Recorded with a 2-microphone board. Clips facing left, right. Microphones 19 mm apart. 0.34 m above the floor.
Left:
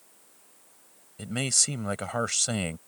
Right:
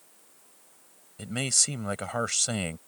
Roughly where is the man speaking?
Centre.